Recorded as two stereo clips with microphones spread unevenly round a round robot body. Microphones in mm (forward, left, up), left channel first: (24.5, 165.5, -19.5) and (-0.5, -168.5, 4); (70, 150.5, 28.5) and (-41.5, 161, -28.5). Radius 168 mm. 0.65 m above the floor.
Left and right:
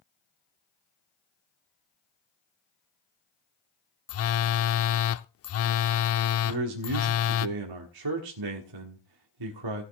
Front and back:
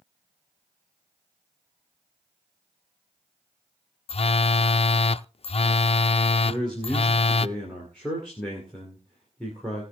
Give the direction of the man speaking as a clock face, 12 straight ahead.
4 o'clock.